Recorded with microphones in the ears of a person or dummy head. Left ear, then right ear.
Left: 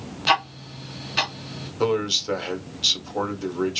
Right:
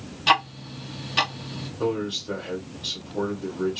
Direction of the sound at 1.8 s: 65° left (ahead or behind).